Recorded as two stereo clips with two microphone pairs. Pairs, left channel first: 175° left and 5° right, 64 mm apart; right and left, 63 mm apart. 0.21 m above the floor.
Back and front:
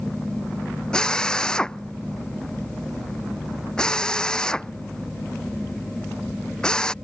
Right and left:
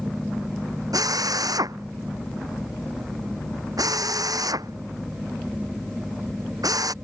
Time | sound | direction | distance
0.9 | a drill | 95° left | ?